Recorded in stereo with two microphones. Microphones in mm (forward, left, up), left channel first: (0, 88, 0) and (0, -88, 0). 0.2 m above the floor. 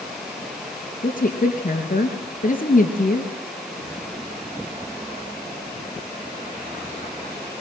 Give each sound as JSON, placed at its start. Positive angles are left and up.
{"t": 1.0, "sound": "a woman speaking", "side_deg": 50, "distance_m": 3.5}